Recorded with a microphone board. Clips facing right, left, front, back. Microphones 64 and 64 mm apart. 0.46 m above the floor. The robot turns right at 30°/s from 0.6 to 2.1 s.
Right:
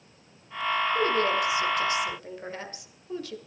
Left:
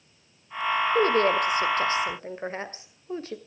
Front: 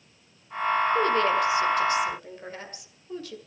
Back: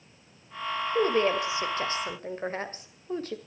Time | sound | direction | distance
0.9 | a woman speaking | 105° left | 2 m